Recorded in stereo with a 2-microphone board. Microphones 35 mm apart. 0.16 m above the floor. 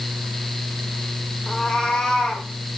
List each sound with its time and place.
1.5 s a cat meowing: 20° left (ahead or behind), 3.5 m